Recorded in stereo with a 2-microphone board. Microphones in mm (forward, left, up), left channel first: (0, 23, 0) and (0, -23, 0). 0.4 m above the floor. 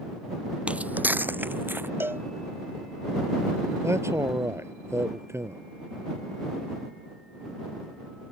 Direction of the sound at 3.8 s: 85° right.